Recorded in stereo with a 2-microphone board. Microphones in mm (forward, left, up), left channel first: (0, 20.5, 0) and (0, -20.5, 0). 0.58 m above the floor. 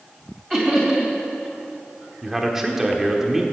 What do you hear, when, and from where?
0.5 s laughter: 10° right (ahead or behind), 2.5 m
2.2 s a man speaking: 10° right (ahead or behind), 1.3 m